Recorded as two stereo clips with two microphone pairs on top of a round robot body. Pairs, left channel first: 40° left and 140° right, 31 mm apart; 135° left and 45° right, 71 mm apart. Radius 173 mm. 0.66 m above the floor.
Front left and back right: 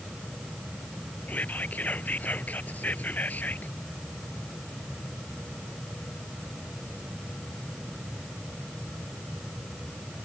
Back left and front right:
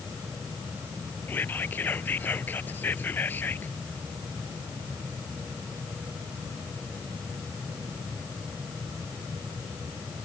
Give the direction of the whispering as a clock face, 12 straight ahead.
10 o'clock.